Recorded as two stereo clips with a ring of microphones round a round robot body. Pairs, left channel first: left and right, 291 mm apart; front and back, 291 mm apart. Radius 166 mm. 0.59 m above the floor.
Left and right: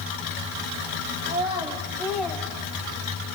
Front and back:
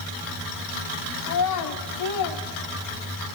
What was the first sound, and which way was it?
A child speaking, 20° right.